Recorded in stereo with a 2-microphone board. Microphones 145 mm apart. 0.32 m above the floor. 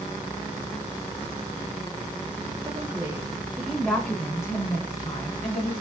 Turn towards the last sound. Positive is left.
turn(degrees=45)  # may be behind; listen again after turning